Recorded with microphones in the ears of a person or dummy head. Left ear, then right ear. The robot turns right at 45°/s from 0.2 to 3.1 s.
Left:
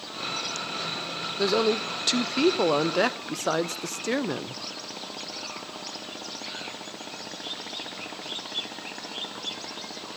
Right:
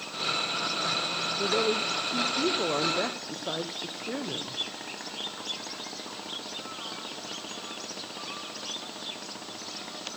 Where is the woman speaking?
40° left, 0.6 m; by 4.6 s 115° left, 0.6 m.